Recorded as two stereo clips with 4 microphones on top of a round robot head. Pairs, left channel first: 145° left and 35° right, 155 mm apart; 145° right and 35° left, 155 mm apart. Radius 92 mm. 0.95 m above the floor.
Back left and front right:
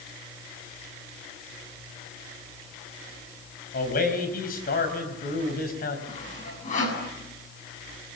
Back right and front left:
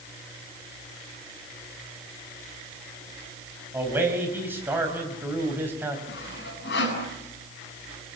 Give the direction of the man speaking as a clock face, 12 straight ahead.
8 o'clock.